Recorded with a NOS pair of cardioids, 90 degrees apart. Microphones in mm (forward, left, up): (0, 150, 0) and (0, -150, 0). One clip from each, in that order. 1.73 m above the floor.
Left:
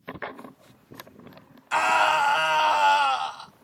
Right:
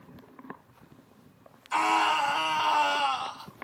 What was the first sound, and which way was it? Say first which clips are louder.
A scream: left 4 dB; 35° left.